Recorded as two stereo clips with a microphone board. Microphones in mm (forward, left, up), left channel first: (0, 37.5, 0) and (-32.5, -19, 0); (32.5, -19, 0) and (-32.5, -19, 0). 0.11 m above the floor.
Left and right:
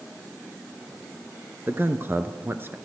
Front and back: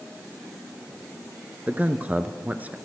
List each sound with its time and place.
1.7 s a man speaking: 135° right, 1.4 m